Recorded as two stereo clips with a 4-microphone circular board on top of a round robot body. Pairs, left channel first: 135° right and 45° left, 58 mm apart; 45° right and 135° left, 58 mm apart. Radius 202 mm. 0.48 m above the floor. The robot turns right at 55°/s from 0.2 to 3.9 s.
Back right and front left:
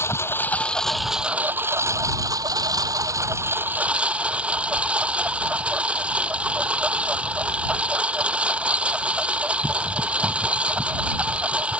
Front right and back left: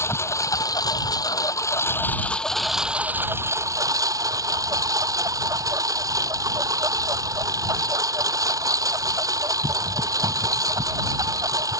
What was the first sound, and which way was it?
A lawn mower, 90° right.